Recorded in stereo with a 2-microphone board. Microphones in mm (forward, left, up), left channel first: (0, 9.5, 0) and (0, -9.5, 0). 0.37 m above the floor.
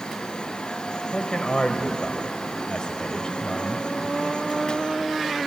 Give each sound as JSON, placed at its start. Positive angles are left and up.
{"t": 1.1, "sound": "a man speaking", "side_deg": 50, "distance_m": 1.3}